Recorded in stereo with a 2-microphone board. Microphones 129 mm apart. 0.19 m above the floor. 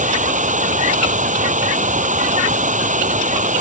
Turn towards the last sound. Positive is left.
turn(degrees=-80)